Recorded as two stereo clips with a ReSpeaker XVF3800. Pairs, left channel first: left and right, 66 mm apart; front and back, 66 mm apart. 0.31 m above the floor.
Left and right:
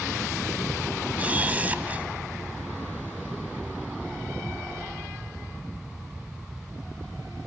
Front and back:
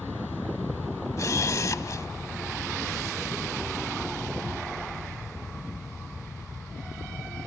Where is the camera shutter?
25° right, 1.1 m.